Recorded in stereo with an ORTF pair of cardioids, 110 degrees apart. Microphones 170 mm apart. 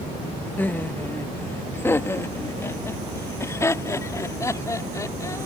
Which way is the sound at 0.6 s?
10° left.